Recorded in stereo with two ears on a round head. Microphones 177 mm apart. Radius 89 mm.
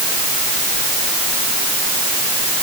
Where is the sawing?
No sawing in this recording.